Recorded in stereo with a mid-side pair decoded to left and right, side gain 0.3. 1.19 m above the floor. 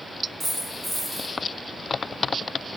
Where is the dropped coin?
35° right, 1.7 m.